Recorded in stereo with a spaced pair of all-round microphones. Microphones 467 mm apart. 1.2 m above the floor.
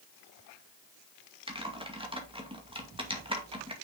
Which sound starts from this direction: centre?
Typing on a keyboard, at 1.5 s.